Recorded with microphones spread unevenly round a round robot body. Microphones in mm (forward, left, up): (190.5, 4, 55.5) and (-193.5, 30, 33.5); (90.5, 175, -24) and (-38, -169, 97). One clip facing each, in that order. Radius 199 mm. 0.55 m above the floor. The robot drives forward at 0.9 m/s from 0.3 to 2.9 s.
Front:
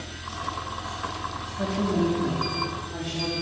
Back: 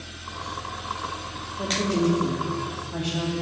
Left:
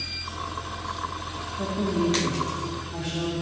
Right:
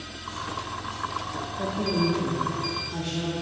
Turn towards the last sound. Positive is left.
turn(degrees=140)